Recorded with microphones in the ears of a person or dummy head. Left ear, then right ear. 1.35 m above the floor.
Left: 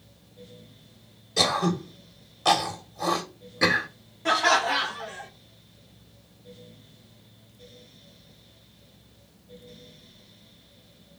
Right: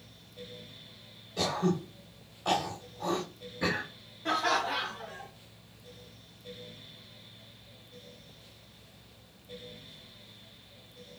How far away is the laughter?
About 0.7 m.